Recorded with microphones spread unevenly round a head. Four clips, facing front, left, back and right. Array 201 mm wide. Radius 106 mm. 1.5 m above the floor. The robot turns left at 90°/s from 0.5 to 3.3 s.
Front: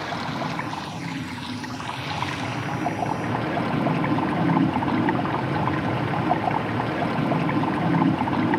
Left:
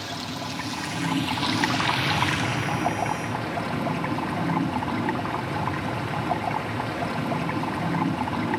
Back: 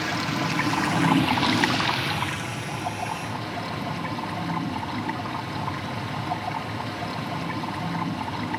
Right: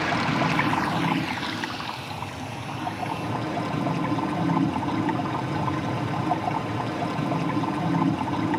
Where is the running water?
110° right, 1.0 m; by 8.6 s straight ahead, 1.0 m.